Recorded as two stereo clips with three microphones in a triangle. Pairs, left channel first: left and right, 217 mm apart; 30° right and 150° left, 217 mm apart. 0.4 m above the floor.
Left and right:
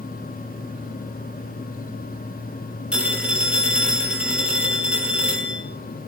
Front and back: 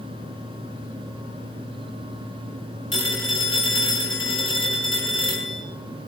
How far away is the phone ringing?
About 7.5 m.